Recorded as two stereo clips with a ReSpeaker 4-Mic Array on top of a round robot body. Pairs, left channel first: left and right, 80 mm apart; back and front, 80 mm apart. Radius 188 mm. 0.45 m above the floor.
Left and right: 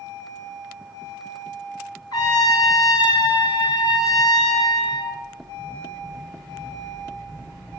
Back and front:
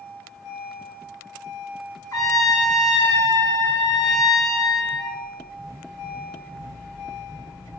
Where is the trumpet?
130° left, 2.5 m.